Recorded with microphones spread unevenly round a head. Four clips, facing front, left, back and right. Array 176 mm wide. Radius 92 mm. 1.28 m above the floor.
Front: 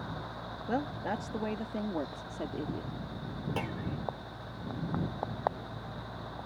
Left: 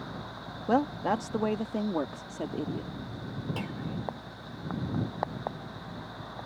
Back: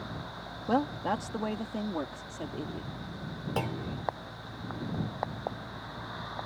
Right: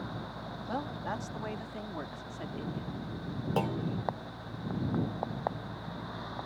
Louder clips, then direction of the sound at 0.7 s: Left 10 dB, back 5 dB; 100° left.